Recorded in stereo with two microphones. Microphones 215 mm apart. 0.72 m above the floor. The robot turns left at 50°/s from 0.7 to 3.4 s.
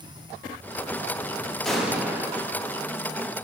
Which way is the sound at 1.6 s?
Centre (ahead or behind).